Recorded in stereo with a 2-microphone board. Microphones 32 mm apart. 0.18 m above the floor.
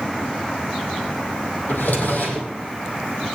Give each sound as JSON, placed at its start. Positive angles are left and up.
{"t": 1.7, "sound": "a drawer", "side_deg": 75, "distance_m": 3.0}